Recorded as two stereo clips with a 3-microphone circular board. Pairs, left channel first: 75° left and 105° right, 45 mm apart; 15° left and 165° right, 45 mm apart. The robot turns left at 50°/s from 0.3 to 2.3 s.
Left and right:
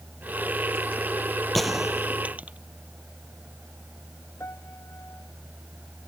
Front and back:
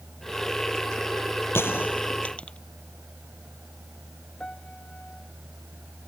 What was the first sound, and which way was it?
A gunshot, 10° right.